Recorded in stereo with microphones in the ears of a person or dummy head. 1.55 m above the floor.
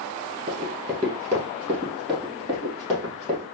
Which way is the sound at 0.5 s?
30° right (ahead or behind).